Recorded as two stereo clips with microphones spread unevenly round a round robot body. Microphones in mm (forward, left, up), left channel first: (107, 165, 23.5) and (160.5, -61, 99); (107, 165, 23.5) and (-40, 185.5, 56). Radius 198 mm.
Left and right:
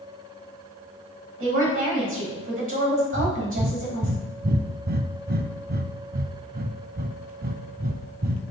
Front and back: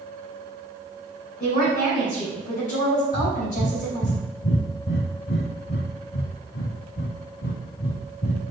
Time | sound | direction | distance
1.4 | a woman speaking | 40° right | 4 m
3.1 | breathing | 40° right | 0.6 m